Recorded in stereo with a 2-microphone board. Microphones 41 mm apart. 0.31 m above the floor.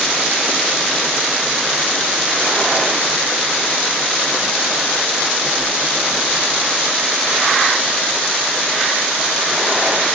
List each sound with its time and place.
Only background noise.